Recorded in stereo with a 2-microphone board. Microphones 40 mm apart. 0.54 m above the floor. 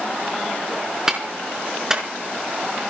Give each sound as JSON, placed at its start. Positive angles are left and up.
{"t": 1.1, "sound": "a clap", "side_deg": -10, "distance_m": 5.0}